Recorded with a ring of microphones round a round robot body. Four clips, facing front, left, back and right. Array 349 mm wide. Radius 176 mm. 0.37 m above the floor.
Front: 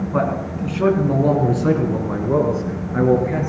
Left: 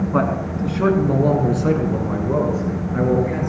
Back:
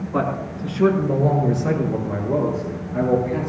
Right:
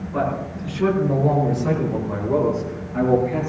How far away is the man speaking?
About 4.5 m.